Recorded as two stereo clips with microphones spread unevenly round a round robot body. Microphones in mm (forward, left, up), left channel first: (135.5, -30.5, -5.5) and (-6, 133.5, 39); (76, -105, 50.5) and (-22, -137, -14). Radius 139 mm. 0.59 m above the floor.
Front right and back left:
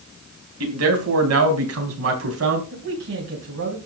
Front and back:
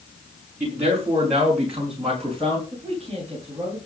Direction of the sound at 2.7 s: 120° left.